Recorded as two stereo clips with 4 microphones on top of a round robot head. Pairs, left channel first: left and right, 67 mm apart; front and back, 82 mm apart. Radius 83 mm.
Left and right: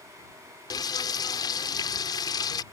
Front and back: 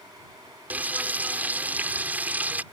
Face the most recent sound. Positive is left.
turn(degrees=110)